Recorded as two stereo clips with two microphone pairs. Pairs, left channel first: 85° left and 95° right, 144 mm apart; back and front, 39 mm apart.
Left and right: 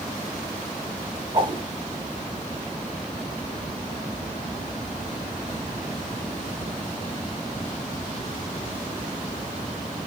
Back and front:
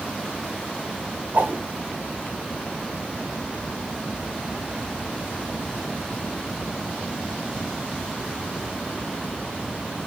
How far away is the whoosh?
About 4.5 m.